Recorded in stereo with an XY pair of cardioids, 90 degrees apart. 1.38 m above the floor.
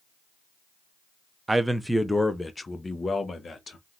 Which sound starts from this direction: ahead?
A man speaking, at 1.5 s.